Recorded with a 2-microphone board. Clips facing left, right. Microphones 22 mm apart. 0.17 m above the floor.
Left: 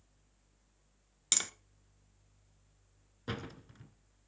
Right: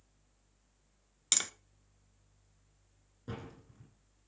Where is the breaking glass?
I don't hear breaking glass.